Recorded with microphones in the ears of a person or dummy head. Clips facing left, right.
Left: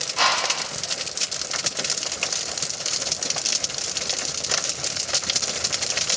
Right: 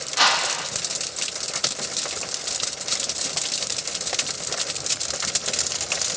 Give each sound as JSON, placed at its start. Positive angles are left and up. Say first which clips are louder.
{"t": 0.2, "sound": "a whoosh", "louder": "even", "side_deg": -15, "distance_m": 1.3}